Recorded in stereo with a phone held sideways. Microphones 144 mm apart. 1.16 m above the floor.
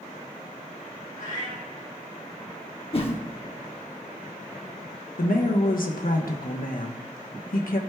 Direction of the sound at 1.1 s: 80° left.